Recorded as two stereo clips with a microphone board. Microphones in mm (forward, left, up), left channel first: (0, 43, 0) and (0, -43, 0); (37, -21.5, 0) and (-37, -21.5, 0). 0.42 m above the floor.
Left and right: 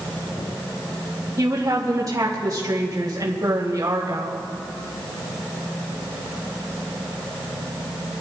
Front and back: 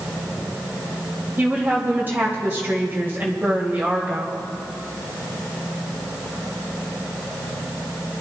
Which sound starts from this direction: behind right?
A woman speaking, at 1.4 s.